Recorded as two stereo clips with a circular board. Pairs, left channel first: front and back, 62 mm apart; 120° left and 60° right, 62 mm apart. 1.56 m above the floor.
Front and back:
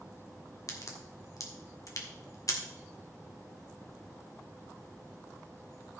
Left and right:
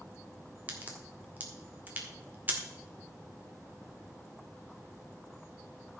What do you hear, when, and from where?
0.7 s a crack: straight ahead, 1.9 m